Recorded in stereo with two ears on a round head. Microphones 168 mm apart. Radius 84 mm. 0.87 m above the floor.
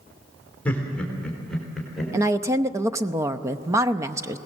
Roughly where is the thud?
I don't hear a thud.